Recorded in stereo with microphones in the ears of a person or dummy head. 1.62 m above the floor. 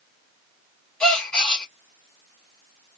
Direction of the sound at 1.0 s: 5° left (ahead or behind).